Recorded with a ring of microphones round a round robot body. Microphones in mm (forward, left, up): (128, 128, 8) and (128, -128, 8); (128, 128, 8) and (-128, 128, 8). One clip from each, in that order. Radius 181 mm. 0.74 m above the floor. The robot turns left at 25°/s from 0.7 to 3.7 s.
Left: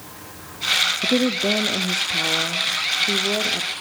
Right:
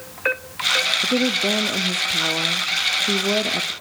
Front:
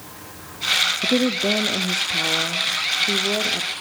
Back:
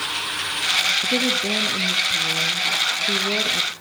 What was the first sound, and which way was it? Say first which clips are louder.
A woman speaking: even, even; 15° left.